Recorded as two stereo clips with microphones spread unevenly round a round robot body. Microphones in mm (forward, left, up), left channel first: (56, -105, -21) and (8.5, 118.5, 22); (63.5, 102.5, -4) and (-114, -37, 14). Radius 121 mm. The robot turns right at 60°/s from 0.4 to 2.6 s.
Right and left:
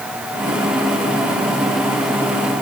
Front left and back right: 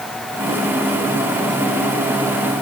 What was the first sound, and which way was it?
Only background noise.